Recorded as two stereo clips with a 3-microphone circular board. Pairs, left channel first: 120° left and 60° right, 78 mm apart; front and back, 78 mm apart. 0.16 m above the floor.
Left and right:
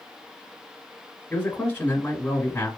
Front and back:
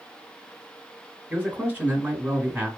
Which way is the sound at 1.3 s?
155° left.